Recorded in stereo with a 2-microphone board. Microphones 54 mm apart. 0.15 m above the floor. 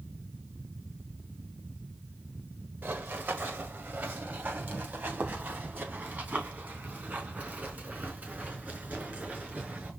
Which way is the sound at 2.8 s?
30° right (ahead or behind).